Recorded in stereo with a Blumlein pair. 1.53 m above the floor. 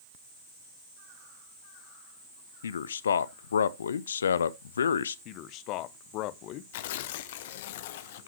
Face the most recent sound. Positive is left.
turn(degrees=55)